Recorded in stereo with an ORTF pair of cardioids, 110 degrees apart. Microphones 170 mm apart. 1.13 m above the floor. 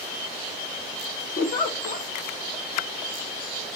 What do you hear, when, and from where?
1.4 s a giggle: 55° left, 0.9 m